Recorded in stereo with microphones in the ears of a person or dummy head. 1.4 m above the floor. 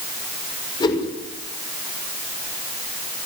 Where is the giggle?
No giggle in this recording.